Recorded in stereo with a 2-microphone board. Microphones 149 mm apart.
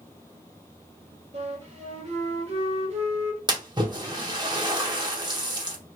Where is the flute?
45° right (ahead or behind), 1.2 m.